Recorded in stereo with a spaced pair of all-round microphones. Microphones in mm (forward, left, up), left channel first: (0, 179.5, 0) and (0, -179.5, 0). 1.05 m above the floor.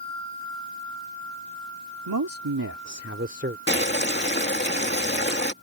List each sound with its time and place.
2.1 s a man speaking: 80° right; by 3.6 s 25° right (ahead or behind)
3.7 s boiling: 30° left (ahead or behind)